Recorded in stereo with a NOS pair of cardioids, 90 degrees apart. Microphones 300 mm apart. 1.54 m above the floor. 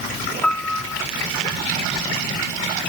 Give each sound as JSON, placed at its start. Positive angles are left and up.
{"t": 0.4, "sound": "a piano", "azimuth_deg": 5}